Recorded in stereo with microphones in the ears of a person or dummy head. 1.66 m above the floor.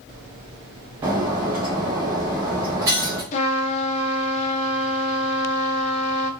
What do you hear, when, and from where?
1.0 s breaking glass: 15° right (ahead or behind), 0.9 m
3.3 s a trumpet: 40° left (ahead or behind), 1.1 m